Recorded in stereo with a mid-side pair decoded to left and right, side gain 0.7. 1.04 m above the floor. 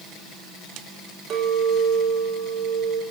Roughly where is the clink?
Ahead right.